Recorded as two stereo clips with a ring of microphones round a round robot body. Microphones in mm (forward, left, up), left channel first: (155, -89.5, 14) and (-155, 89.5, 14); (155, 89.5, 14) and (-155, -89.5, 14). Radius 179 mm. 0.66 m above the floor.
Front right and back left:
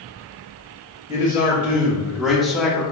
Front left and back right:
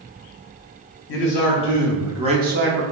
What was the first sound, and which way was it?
A man speaking, 65° left.